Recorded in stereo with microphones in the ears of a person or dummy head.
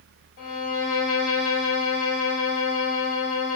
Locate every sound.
0.4 s a violin: 60° left (ahead or behind), 1.2 m